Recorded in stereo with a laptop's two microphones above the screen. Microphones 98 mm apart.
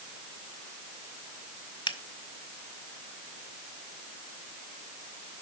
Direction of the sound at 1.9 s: 55° left (ahead or behind).